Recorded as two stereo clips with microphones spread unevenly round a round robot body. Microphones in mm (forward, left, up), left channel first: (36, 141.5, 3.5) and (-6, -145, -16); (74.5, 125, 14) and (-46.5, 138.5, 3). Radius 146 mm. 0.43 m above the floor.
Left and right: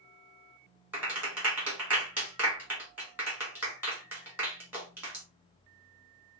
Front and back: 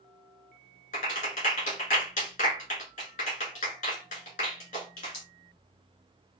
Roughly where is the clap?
Ahead.